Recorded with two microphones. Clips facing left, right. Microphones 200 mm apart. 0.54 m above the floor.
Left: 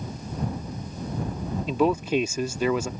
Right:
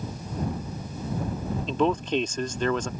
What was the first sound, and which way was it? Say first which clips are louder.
A man speaking: left 2 dB; 10° left (ahead or behind).